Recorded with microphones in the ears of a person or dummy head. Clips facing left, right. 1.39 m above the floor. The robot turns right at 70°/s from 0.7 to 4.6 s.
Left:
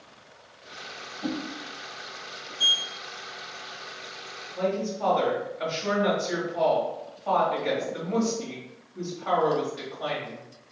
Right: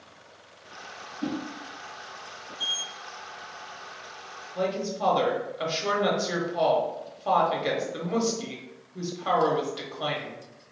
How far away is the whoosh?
About 1.0 m.